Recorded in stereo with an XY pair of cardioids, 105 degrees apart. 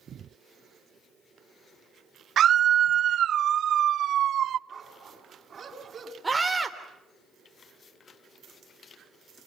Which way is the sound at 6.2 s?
10° right.